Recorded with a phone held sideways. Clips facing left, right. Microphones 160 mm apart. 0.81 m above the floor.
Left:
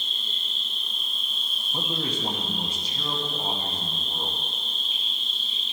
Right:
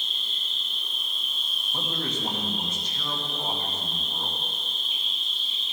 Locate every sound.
0.0 s an insect: 30° left (ahead or behind), 1.6 m
1.7 s a man speaking: 10° left (ahead or behind), 1.2 m